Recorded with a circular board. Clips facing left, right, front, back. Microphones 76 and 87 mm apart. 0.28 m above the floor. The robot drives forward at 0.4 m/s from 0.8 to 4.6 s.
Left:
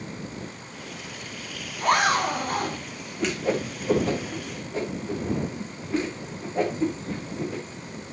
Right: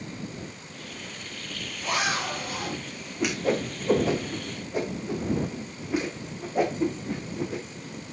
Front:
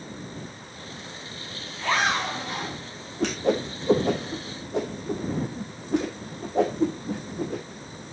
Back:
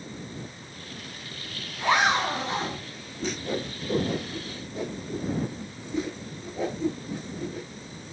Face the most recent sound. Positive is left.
turn(degrees=-15)